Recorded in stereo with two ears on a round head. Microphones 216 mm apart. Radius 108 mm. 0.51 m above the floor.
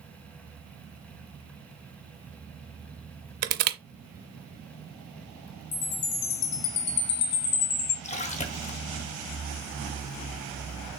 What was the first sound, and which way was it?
Crushing, 45° right (ahead or behind).